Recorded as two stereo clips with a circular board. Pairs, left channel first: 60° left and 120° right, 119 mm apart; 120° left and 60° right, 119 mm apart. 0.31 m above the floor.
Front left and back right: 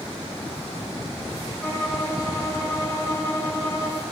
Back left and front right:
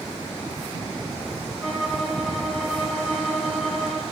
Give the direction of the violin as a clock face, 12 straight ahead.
11 o'clock.